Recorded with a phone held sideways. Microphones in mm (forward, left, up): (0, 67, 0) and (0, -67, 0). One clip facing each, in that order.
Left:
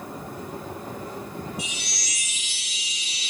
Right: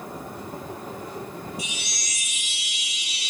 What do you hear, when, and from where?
1.6 s a chime: 60° left (ahead or behind), 3.5 m